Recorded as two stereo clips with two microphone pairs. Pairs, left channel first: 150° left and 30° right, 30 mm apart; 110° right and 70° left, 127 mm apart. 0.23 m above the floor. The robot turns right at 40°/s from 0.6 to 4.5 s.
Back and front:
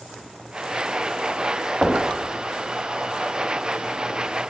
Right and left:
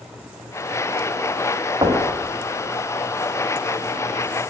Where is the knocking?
30° left, 1.9 m; by 2.1 s 40° left, 1.9 m.